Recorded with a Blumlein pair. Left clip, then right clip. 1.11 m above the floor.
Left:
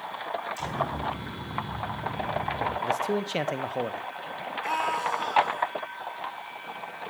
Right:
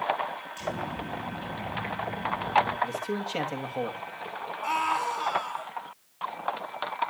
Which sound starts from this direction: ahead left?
An explosion, at 0.6 s.